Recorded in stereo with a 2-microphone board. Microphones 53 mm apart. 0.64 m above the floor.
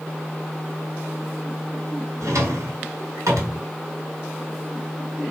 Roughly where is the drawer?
Right.